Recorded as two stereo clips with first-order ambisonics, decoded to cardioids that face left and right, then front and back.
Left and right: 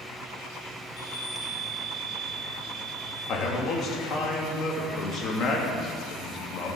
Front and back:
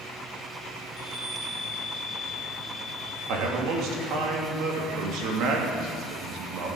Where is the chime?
95° left, 3 m.